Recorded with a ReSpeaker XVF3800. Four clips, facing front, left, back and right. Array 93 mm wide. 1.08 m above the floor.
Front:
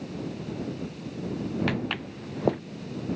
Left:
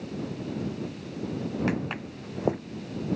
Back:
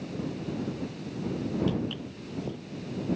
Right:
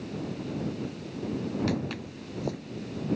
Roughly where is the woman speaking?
I don't hear a woman speaking.